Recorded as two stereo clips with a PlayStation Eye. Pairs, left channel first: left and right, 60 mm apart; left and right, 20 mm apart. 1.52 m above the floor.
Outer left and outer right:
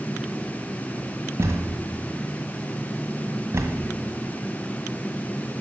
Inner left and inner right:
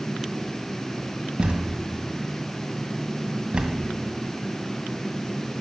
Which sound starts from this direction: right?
A thud, at 1.4 s.